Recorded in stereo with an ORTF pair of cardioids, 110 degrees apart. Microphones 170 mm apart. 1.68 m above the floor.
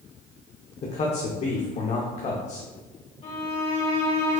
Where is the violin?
35° left, 1.9 m.